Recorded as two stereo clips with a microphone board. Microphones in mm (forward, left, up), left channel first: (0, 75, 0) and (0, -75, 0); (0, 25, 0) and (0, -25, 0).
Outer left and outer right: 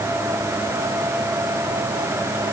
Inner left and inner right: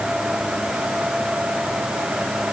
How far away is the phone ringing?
I don't hear a phone ringing.